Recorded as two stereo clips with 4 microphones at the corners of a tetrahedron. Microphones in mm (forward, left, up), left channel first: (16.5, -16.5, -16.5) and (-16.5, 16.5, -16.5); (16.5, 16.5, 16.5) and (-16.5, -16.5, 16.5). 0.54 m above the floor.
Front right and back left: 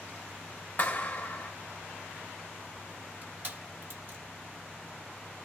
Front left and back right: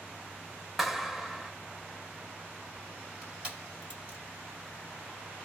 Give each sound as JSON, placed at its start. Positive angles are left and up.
{"t": 0.8, "sound": "a clap", "azimuth_deg": -55, "distance_m": 0.6}
{"t": 3.2, "sound": "crushing", "azimuth_deg": 165, "distance_m": 2.0}